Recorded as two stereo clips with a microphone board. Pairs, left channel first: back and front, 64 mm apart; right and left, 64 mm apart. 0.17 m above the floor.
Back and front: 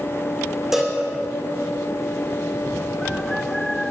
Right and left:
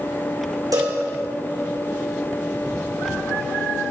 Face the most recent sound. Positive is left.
turn(degrees=85)